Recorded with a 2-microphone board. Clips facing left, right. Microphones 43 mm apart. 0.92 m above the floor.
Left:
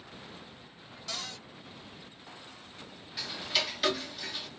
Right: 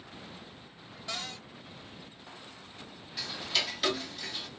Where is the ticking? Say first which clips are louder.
Even; 5° left (ahead or behind), 1.0 m.